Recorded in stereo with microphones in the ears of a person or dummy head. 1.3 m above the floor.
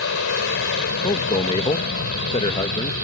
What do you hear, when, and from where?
0.0 s an aircraft: 60° left (ahead or behind); by 3.0 s 55° left (ahead or behind)
1.0 s a man speaking: 20° left (ahead or behind)